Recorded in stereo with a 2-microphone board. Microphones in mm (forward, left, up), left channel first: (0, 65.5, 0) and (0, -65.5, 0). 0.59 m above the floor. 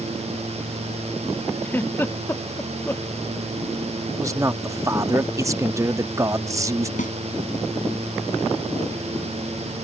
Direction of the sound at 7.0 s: 80° left.